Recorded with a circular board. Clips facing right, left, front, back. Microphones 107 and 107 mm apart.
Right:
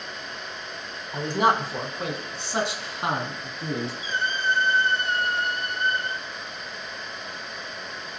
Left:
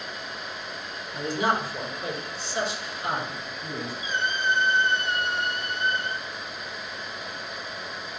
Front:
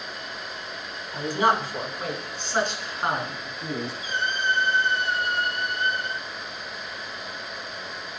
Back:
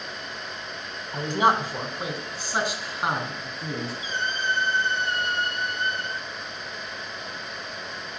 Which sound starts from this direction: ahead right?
A squeak, at 4.0 s.